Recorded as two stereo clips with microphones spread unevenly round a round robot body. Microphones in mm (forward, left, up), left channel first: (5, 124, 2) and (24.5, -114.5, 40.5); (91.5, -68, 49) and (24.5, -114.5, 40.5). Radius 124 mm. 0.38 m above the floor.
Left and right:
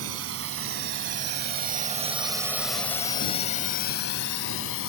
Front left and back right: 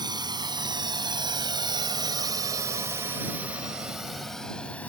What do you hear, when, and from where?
0.0 s a drone: 120° right; by 4.9 s 115° left